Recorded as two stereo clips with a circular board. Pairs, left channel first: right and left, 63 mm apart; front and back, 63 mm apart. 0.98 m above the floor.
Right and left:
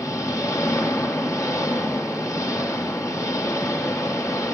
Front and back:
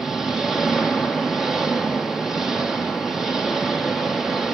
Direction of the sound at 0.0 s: 95° right.